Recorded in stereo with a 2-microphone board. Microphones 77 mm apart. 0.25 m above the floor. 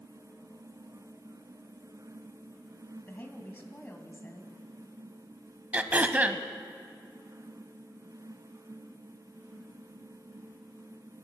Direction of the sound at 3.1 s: 25° left (ahead or behind).